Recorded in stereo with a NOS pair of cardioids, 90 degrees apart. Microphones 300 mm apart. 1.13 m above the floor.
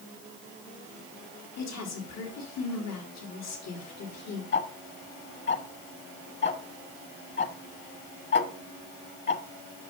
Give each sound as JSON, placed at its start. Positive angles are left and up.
{"t": 1.6, "sound": "a woman speaking", "azimuth_deg": 70, "distance_m": 3.0}
{"t": 4.5, "sound": "ticking", "azimuth_deg": 40, "distance_m": 1.5}